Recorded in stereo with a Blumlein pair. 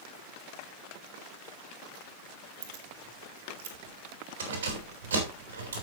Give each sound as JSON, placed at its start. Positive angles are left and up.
{"t": 2.6, "sound": "keys jangling", "azimuth_deg": -45, "distance_m": 3.0}